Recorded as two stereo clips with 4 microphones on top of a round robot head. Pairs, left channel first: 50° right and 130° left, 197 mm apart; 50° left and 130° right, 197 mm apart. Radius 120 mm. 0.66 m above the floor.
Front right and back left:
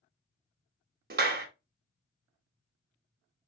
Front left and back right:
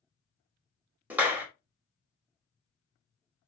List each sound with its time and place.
1.1 s a clap: 150° left, 1.1 m